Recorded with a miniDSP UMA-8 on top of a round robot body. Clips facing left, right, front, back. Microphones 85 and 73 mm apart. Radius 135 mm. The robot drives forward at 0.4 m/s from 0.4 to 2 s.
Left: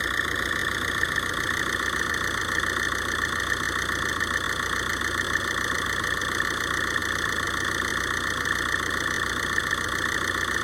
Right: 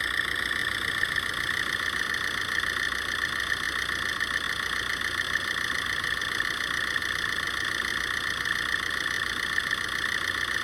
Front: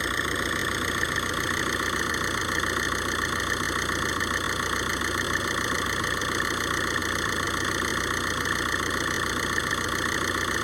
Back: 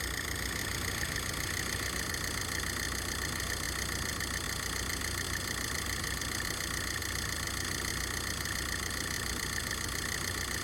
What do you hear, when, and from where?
0.0 s an engine running: 25° left; by 10.7 s 30° left